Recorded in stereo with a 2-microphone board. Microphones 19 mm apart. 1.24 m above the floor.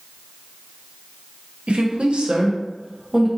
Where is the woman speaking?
80° right, 1.0 m; by 3.3 s 20° right (ahead or behind), 1.1 m.